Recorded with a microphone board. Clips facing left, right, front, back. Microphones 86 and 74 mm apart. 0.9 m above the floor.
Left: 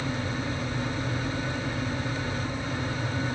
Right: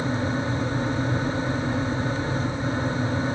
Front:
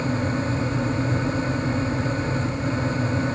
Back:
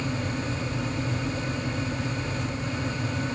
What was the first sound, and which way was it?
Only background noise.